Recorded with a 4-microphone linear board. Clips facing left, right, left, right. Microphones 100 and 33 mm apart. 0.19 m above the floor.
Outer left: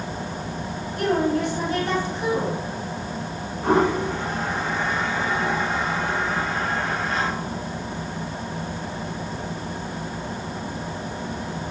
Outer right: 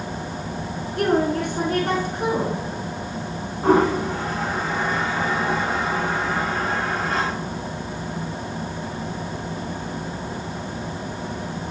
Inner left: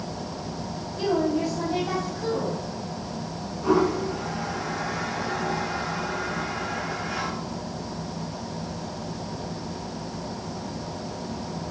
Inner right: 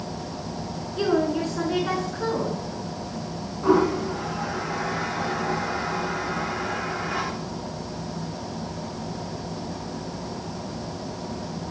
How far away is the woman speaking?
About 2.5 m.